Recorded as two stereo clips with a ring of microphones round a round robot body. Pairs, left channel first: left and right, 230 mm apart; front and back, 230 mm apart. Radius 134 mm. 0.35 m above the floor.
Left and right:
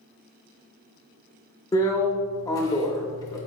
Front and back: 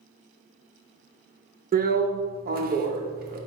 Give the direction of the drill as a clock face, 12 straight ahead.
7 o'clock.